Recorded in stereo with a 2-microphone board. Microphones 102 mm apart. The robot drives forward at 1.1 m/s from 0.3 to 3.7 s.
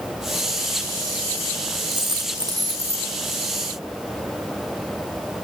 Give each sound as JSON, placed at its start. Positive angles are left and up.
{"t": 1.9, "sound": "a dropped coin", "side_deg": -50, "distance_m": 2.0}